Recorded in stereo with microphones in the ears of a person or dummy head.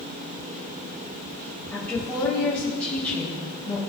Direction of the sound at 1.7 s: 5° left (ahead or behind).